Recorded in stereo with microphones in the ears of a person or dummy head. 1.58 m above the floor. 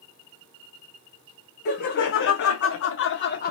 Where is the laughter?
50° left (ahead or behind), 1.0 m.